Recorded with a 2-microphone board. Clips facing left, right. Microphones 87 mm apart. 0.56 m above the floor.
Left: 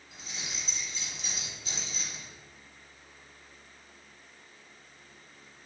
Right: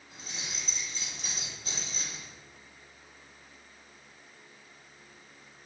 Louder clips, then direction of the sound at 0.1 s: Even; 45° right (ahead or behind).